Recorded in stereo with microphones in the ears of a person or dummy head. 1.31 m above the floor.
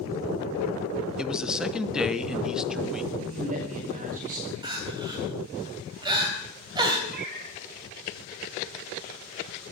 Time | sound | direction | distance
1.2 | a man speaking | centre (ahead or behind) | 1.1 m
3.1 | a man speaking | 40° right (ahead or behind) | 4.5 m
4.6 | crying | 25° right (ahead or behind) | 3.5 m
7.1 | a cat meowing | 50° right (ahead or behind) | 3 m